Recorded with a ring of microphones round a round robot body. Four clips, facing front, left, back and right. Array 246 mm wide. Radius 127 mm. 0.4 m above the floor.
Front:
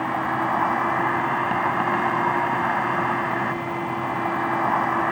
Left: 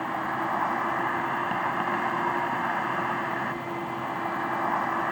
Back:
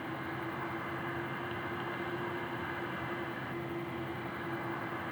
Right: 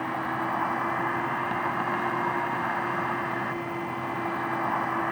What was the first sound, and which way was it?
An insect, 5° left.